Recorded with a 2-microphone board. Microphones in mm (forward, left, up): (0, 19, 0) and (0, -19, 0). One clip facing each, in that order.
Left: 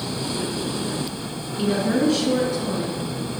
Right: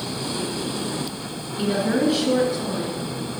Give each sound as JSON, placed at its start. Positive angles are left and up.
{"t": 1.6, "sound": "a woman speaking", "side_deg": -5, "distance_m": 1.1}